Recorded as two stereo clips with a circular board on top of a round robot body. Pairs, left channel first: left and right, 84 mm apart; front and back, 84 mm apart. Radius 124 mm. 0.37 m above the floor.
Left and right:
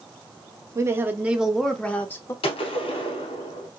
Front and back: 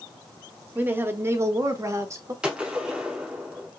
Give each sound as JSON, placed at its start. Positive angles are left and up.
{"t": 0.8, "sound": "a woman speaking", "azimuth_deg": -120, "distance_m": 1.0}
{"t": 2.4, "sound": "a gunshot", "azimuth_deg": 100, "distance_m": 0.7}